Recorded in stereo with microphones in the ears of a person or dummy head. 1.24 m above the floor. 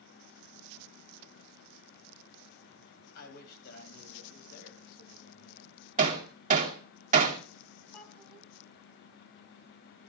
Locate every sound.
3.1 s a man speaking: 60° left (ahead or behind), 7 m
6.0 s hammering: 45° right (ahead or behind), 2.5 m
7.9 s a child speaking: 5° left (ahead or behind), 5 m